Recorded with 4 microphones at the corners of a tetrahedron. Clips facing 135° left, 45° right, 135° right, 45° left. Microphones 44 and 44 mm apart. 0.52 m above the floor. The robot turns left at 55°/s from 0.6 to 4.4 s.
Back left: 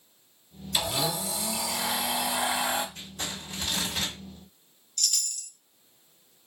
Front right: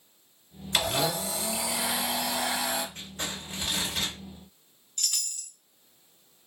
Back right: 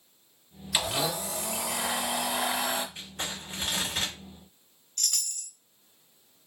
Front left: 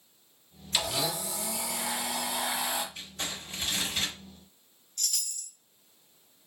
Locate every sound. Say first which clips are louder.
0.7 s a blender: front right 2 dB, back right 2 dB; 65° right, 0.7 m; by 2.9 s straight behind, 0.7 m
3.0 s crumpling: front right 1 dB, back right 1 dB; 75° right, 2 m; by 4.2 s 145° right, 2 m
5.0 s a chime: back left 2 dB, back right 2 dB; 110° right, 0.6 m